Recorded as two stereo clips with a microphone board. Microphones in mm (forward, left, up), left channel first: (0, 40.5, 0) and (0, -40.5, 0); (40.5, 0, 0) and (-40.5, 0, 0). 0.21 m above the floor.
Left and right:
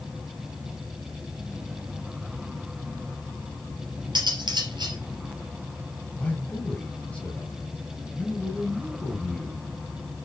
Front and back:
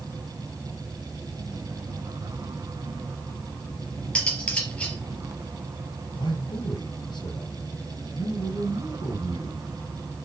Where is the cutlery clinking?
75° right, 2.5 m.